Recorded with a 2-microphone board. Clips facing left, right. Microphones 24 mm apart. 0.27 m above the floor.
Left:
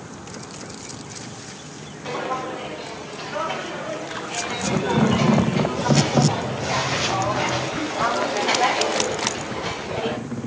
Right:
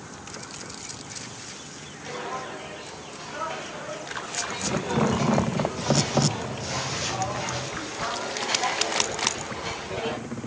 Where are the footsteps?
70° left (ahead or behind), 6 m; by 10.2 s 15° left (ahead or behind), 1.9 m.